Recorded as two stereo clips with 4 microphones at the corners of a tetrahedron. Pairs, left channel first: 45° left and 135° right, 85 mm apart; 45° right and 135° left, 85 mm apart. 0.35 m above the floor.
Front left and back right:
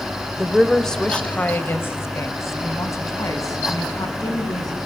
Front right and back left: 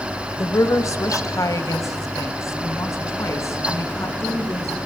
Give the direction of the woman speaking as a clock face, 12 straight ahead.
2 o'clock.